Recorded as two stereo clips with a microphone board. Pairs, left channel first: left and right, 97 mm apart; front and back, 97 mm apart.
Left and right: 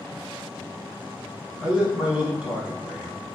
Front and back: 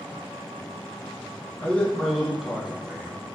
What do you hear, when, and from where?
1.6 s a man speaking: 25° right, 1.1 m; by 3.2 s 155° right, 1.2 m